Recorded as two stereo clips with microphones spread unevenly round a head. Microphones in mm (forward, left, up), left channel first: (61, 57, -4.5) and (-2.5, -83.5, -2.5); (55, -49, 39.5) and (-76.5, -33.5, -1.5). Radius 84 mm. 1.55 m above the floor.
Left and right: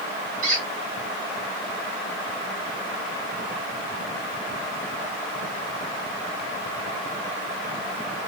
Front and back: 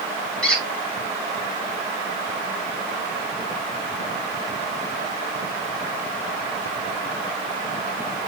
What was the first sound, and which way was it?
A squeak, 85° right.